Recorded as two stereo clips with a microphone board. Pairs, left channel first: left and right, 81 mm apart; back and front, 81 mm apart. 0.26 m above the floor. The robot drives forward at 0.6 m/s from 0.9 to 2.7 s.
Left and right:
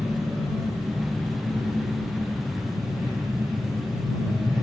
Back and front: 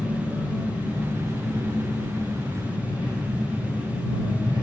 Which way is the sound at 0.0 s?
5° right.